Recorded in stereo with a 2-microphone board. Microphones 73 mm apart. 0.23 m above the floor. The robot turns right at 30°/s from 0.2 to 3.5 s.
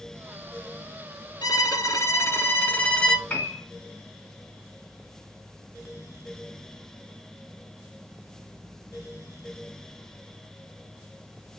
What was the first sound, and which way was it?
A violin, 115° left.